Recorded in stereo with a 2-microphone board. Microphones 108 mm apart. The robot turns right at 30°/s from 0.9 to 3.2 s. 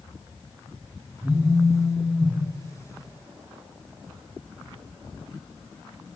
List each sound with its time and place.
1.2 s a phone buzzing: 15° right (ahead or behind), 0.8 m; by 2.4 s 10° right (ahead or behind), 0.8 m